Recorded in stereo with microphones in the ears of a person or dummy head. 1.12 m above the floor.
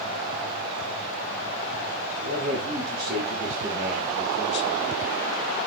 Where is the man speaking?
55° right (ahead or behind), 2.5 m; by 4.8 s 70° left (ahead or behind), 1.3 m.